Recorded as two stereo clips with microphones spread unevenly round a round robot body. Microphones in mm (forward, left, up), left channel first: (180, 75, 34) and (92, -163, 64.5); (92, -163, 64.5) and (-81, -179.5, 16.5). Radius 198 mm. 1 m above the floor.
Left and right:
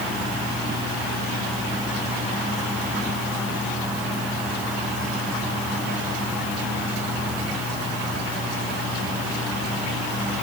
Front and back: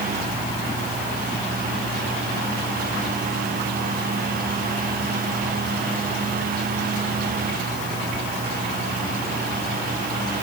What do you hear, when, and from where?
Only background noise.